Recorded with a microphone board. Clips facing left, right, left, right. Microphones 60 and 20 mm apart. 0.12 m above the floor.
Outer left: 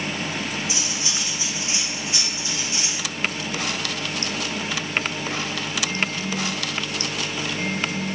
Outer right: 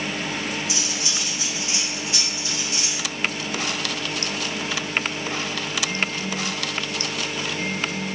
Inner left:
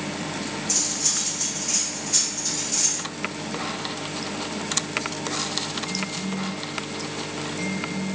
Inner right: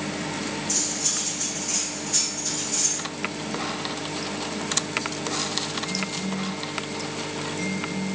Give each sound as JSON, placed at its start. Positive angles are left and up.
{"t": 0.7, "sound": "cutlery clinking", "side_deg": 30, "distance_m": 4.0}